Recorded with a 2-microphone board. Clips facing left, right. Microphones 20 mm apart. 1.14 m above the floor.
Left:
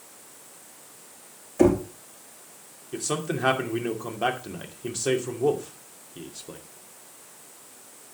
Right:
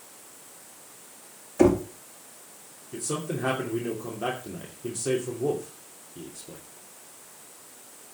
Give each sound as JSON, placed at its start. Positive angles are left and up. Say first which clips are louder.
{"t": 1.6, "sound": "knocking", "louder": "even", "side_deg": -15, "distance_m": 1.9}
{"t": 2.9, "sound": "a man speaking", "louder": "left 3 dB", "side_deg": 50, "distance_m": 2.5}